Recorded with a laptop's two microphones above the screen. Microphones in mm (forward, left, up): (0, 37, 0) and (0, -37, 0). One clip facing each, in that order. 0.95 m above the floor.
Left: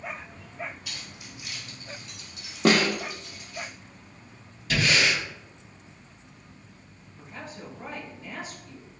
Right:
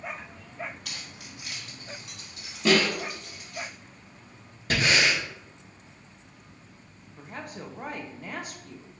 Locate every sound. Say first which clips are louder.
0.8 s keys jangling: even; 65° right (ahead or behind), 1.3 m; by 3.6 s 80° right, 3.5 m
2.6 s a snare drum: left 1 dB; 60° left (ahead or behind), 1.1 m
4.7 s breathing: even; 45° right (ahead or behind), 1.1 m
7.2 s a woman speaking: right 2 dB; 55° right (ahead or behind), 0.8 m